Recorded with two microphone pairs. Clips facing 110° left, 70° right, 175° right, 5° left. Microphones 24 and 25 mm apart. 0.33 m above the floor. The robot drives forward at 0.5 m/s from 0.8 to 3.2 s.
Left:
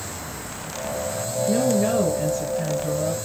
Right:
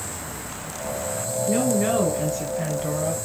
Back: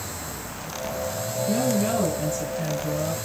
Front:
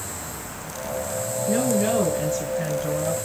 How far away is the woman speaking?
About 3.5 m.